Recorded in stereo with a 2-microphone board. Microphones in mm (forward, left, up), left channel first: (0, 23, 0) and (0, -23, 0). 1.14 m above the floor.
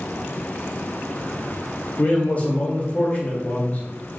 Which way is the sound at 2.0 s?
35° left (ahead or behind).